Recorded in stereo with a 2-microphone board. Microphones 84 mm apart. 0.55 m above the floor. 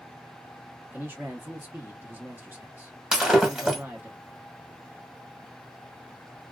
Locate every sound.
0.9 s a man speaking: 20° right (ahead or behind), 0.9 m
3.1 s breaking glass: 5° right (ahead or behind), 0.9 m